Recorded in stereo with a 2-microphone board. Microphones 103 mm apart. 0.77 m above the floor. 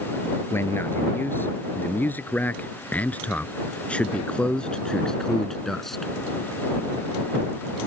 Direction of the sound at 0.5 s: 20° left (ahead or behind).